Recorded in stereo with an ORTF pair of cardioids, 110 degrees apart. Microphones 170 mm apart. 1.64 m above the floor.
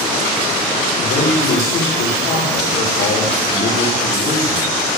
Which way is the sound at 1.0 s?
70° left.